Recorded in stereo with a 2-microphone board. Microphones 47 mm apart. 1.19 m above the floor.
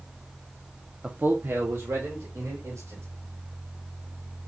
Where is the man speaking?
25° right (ahead or behind), 0.6 m; by 3.0 s 75° right (ahead or behind), 3 m.